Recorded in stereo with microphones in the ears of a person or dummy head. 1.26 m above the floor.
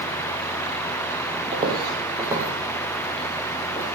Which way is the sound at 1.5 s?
25° right (ahead or behind).